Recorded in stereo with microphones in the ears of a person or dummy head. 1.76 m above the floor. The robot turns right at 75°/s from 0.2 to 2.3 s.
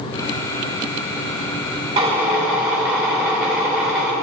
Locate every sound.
2.0 s a drill: 25° right (ahead or behind), 2.5 m; by 4.1 s centre (ahead or behind), 2.5 m